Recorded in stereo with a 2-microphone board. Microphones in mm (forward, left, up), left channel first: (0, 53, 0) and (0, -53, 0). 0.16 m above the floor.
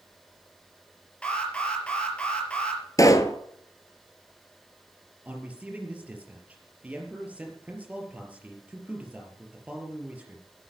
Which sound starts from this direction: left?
A pop, at 3.0 s.